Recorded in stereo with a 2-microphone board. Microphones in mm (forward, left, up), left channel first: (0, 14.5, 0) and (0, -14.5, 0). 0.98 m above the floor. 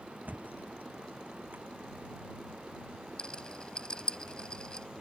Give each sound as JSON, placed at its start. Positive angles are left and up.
{"t": 0.2, "sound": "a thud", "side_deg": -75}
{"t": 3.2, "sound": "a rattle", "side_deg": 30}